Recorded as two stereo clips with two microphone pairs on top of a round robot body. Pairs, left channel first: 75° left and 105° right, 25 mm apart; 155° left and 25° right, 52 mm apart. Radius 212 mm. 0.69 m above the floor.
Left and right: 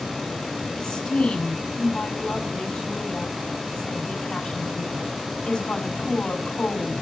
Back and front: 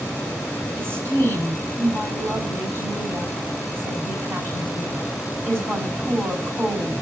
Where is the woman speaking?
15° left, 5.5 m.